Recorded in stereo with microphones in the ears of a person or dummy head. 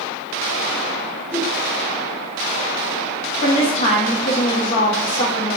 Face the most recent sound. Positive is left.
turn(degrees=35)  # may be behind; listen again after turning